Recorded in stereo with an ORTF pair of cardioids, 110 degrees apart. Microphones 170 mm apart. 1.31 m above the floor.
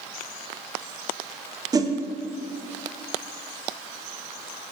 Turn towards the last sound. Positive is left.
turn(degrees=-20)